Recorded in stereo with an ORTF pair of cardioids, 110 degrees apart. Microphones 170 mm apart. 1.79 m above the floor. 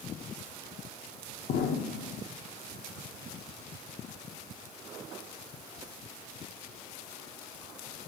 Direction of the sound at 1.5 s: 65° left.